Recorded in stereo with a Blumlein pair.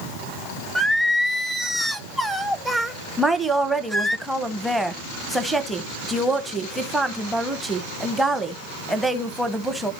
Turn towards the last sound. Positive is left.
turn(degrees=-5)